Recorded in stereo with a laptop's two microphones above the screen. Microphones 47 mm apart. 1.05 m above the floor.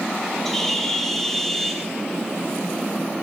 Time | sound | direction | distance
0.5 | a bird | 5° left (ahead or behind) | 3 m